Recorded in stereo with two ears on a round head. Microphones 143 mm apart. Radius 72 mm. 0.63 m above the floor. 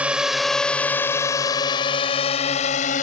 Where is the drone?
10° right (ahead or behind); by 3.0 s 45° left (ahead or behind).